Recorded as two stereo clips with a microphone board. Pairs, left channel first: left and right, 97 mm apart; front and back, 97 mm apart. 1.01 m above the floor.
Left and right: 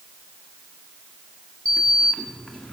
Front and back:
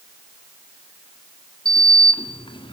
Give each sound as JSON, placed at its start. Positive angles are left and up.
{"t": 1.6, "sound": "a sliding door", "azimuth_deg": 10, "distance_m": 1.7}